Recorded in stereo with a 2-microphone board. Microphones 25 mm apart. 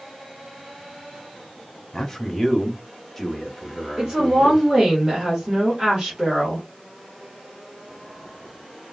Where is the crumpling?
I don't hear crumpling.